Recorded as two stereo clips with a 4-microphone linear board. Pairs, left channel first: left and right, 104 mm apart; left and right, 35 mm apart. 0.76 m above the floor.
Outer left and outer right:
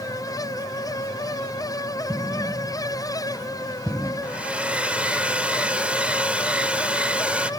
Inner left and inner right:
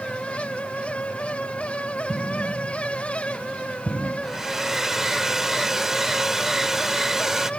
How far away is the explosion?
About 2 m.